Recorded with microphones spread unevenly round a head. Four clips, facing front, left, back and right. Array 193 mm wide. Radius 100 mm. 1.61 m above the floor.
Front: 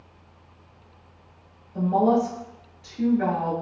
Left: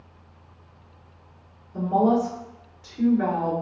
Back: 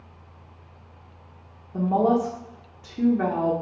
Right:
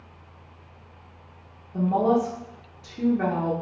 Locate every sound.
1.7 s a woman speaking: 160° right, 0.8 m